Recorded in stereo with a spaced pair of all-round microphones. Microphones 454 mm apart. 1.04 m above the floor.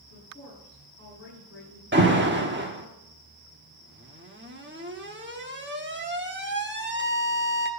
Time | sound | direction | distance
0.1 | a woman speaking | 25° left (ahead or behind) | 8 m
1.9 | an alarm | 25° right (ahead or behind) | 1.2 m